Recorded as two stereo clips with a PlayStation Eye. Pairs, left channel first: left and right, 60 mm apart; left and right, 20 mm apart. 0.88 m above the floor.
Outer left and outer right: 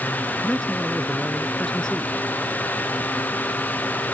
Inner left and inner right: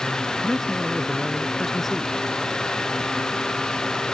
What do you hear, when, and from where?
0.4 s a man speaking: 15° left (ahead or behind)